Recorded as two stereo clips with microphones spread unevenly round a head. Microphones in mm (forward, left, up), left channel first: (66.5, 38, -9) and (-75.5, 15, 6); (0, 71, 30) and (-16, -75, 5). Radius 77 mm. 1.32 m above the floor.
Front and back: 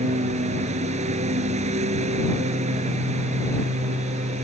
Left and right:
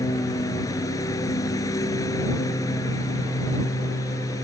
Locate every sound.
0.0 s a lawn mower: 150° left